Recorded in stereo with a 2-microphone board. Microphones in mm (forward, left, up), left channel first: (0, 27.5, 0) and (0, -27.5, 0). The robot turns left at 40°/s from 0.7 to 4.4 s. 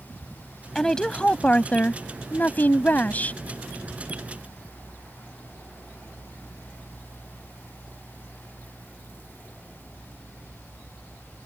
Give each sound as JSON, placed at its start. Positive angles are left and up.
{"t": 0.8, "sound": "a woman speaking", "azimuth_deg": 165}